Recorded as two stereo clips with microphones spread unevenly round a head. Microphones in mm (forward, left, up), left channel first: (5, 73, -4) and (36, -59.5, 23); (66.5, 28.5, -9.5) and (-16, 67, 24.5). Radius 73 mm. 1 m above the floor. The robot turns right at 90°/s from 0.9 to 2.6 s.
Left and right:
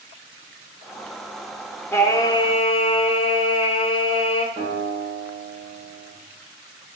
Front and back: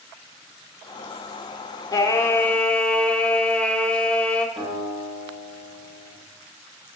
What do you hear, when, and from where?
1.9 s singing: 25° left, 0.6 m; by 4.5 s 90° left, 0.6 m
4.6 s a guitar: 140° right, 2 m